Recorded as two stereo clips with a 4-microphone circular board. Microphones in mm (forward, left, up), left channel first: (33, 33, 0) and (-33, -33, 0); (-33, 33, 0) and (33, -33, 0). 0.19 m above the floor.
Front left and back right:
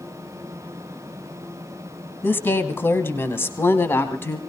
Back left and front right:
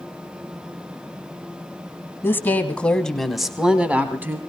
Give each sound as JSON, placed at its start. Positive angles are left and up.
{"t": 2.2, "sound": "a woman speaking", "azimuth_deg": 90, "distance_m": 1.6}